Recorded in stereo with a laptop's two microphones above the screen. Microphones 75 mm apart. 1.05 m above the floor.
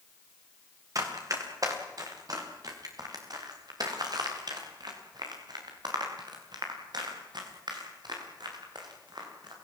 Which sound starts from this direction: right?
Running footsteps, at 0.9 s.